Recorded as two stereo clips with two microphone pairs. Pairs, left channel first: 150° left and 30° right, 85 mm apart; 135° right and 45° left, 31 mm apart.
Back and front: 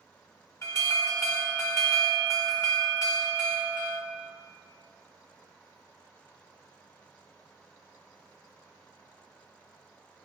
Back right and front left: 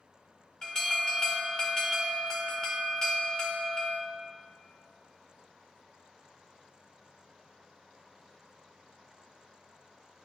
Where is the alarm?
160° left, 2 m.